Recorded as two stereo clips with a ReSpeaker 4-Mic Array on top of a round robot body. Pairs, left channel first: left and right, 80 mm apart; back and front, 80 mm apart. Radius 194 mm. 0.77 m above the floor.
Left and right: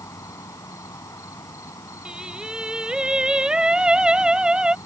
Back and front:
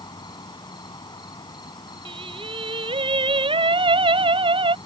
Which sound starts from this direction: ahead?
Singing, at 2.0 s.